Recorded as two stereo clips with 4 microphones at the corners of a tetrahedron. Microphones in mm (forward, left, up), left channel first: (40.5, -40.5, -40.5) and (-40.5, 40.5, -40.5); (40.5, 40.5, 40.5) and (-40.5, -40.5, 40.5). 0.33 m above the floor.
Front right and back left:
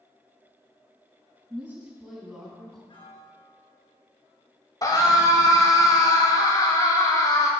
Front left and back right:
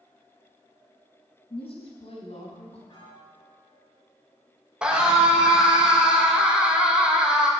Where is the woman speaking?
65° left, 2.5 m; by 2.8 s 40° left, 3 m.